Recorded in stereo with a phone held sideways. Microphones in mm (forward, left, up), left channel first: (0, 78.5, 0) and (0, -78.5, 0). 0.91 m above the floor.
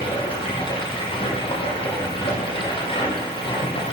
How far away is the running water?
About 9.5 m.